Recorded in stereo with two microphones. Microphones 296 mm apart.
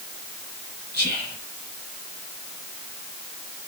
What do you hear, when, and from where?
0.9 s whispering: 30° right (ahead or behind), 1.9 m